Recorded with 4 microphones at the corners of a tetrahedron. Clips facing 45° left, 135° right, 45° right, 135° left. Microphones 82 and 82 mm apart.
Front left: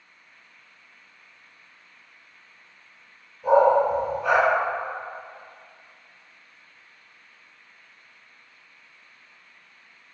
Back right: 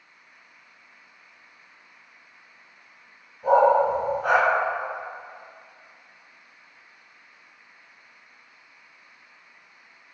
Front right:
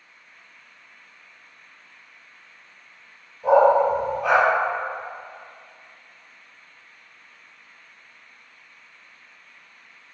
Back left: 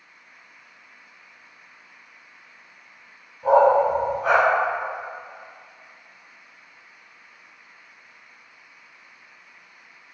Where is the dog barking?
175° right, 1.4 m.